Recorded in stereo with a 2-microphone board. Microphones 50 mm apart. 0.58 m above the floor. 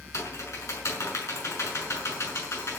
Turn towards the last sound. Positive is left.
turn(degrees=70)  # may be behind; listen again after turning